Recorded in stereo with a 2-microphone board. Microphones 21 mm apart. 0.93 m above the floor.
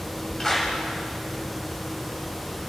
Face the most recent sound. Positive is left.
turn(degrees=15)  # may be behind; listen again after turning